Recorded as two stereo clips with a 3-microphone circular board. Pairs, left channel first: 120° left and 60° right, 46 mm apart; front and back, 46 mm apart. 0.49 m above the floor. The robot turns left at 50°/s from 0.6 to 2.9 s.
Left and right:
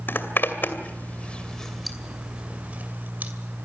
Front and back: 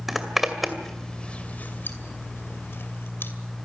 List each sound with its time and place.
0.1 s a zipper: 95° left, 2 m; by 3.3 s 20° right, 2 m